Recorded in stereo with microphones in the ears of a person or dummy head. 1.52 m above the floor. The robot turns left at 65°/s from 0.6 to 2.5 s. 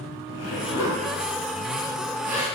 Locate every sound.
0.3 s a zipper: 75° left (ahead or behind), 3 m; by 2.5 s 20° right (ahead or behind), 3 m